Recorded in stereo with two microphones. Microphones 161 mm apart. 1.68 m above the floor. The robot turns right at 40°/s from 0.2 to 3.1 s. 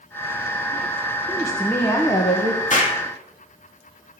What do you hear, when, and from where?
1.3 s a woman speaking: 5° right, 1.6 m; by 2.6 s 45° left, 1.6 m
2.7 s an explosion: 50° left (ahead or behind), 2.5 m; by 3.0 s 40° left (ahead or behind), 2.5 m